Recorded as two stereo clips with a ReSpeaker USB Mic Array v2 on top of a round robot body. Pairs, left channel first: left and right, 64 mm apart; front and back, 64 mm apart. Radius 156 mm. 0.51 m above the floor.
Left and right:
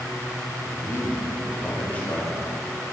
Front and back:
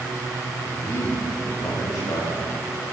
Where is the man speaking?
55° left, 4 m; by 2.4 s 20° left, 4.5 m.